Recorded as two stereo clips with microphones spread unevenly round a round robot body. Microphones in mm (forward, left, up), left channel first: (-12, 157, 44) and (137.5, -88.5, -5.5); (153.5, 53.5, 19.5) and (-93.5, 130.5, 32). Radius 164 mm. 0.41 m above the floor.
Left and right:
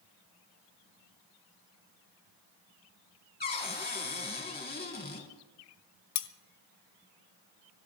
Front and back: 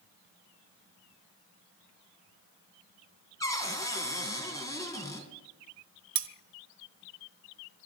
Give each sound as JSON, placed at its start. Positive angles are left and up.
{"t": 3.4, "sound": "a cupboard door", "azimuth_deg": 60, "distance_m": 2.5}
{"t": 6.2, "sound": "cutlery clinking", "azimuth_deg": 135, "distance_m": 0.8}